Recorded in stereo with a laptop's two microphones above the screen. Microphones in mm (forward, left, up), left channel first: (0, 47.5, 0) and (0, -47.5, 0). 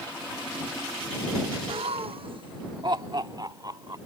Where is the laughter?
65° right (ahead or behind); by 4.0 s 40° right (ahead or behind).